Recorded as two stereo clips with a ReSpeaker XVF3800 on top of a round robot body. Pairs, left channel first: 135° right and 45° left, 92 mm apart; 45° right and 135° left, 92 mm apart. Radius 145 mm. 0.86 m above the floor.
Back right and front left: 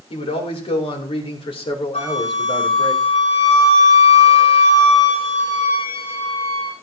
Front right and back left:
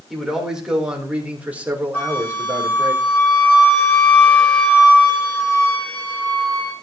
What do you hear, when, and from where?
0.1 s a man speaking: 140° right, 4 m; by 2.9 s 165° right, 3.5 m
1.9 s a flute: 120° right, 8 m